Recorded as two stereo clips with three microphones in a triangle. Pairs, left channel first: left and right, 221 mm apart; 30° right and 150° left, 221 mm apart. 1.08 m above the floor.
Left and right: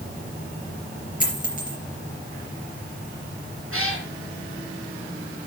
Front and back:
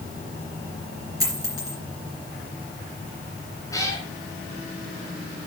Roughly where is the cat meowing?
Right.